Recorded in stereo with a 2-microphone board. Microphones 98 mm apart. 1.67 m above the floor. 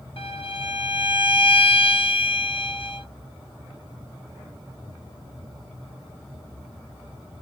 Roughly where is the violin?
Left.